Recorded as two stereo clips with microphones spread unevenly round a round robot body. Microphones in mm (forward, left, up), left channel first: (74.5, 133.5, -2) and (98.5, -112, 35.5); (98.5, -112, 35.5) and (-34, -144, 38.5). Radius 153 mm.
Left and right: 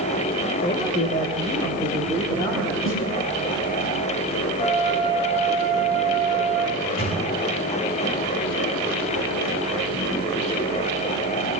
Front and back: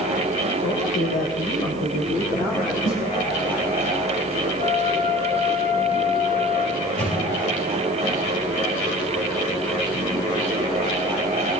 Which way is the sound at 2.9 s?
60° left.